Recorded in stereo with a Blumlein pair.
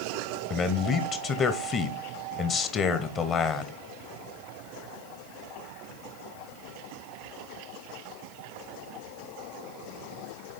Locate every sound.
0.5 s a man speaking: 25° left, 0.9 m